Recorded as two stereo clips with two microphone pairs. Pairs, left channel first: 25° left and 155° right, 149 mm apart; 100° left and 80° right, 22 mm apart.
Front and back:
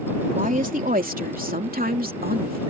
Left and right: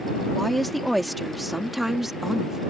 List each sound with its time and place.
0.3 s a woman speaking: straight behind; by 2.6 s 150° right